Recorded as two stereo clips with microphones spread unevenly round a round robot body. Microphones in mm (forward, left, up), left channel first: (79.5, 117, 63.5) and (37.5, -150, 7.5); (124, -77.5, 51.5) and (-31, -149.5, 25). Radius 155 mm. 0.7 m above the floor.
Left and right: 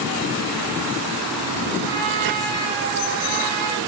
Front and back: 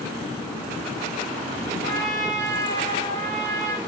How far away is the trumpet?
About 5 m.